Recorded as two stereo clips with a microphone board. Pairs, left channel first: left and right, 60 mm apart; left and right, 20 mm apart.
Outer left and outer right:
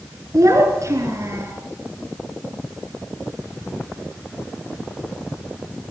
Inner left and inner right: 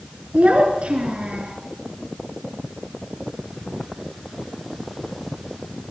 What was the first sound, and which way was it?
A child speaking, 65° right (ahead or behind).